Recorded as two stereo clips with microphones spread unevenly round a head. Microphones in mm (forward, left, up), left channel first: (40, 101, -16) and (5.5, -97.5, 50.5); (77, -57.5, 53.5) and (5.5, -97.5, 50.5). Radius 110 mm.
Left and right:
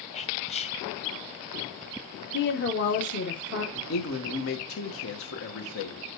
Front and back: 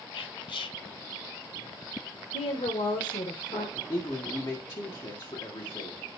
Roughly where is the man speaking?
Left.